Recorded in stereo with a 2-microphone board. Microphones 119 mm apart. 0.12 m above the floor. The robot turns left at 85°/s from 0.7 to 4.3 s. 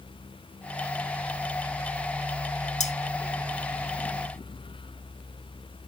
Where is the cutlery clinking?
65° left (ahead or behind), 1.5 m.